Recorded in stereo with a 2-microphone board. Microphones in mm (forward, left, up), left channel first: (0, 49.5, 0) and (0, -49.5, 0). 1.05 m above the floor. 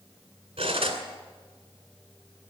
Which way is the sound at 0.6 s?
80° right.